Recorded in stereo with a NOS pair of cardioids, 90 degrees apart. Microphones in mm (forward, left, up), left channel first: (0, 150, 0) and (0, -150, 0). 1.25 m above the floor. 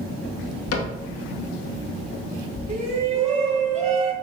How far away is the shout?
About 3.5 m.